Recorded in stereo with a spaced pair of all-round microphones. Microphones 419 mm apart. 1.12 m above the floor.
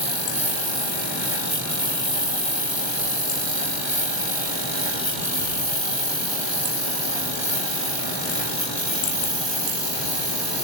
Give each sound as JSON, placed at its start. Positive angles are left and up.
{"t": 0.0, "sound": "a lawn mower", "side_deg": -80}